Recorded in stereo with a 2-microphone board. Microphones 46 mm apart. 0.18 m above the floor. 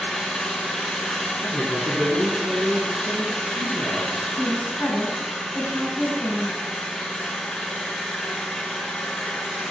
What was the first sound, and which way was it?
An engine running, 5° left (ahead or behind).